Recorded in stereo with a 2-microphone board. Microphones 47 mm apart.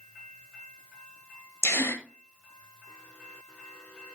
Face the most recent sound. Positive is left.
turn(degrees=75)  # may be behind; listen again after turning